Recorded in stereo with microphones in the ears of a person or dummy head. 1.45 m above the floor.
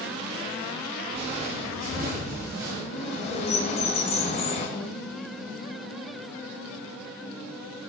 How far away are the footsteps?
About 3 m.